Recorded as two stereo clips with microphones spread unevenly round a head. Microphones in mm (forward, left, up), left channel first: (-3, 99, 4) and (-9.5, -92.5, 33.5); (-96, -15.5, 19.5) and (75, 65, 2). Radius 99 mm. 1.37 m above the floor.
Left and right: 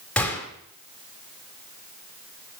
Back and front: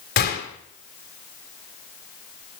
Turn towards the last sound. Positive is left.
turn(degrees=175)